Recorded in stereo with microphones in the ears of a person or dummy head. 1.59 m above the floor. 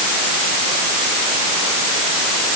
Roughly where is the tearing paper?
No tearing paper in this recording.